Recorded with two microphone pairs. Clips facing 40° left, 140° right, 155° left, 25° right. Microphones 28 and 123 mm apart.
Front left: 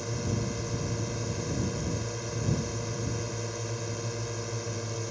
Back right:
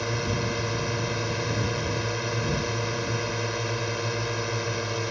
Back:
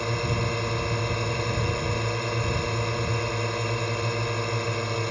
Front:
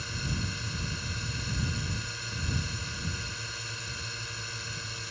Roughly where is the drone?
Behind.